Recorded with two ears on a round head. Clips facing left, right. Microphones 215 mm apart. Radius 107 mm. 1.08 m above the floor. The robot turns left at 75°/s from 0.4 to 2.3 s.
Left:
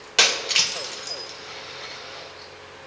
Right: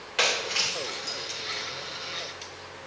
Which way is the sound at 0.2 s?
65° left (ahead or behind).